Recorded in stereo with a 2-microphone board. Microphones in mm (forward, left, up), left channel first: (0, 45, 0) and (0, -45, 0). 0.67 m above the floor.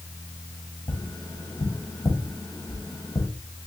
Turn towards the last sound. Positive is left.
turn(degrees=45)  # may be behind; listen again after turning